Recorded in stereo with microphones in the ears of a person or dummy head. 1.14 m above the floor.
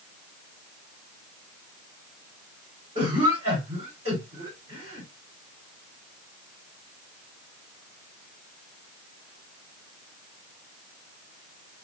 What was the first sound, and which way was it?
A cough, 15° right (ahead or behind).